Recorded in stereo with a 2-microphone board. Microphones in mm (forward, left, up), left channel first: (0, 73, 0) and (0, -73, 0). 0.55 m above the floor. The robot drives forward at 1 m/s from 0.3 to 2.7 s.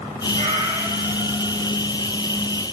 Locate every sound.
0.3 s a cat meowing: 55° right (ahead or behind), 1.9 m; by 1.8 s 30° right (ahead or behind), 3 m